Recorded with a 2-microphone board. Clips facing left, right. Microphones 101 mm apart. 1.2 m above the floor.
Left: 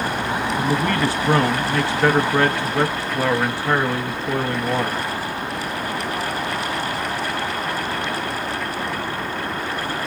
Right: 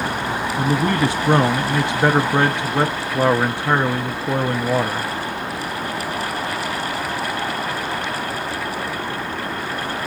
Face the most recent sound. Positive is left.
turn(degrees=-20)  # may be behind; listen again after turning